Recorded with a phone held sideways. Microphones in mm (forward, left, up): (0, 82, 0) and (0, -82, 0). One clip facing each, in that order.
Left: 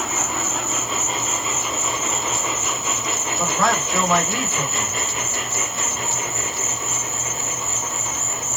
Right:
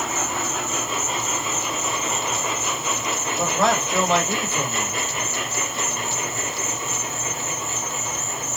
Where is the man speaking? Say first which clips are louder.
Right 1 dB; 20° right (ahead or behind), 1.5 m.